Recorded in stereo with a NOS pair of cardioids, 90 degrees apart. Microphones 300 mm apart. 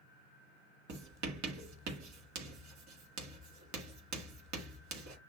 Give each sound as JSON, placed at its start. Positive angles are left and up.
{"t": 0.9, "sound": "writing", "azimuth_deg": -65, "distance_m": 1.6}